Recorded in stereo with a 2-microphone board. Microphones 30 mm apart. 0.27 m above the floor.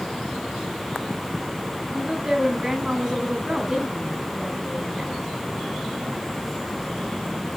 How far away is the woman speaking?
About 2.5 m.